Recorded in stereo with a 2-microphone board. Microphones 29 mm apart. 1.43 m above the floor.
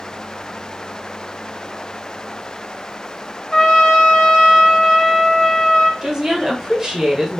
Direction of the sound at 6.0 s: 20° right (ahead or behind).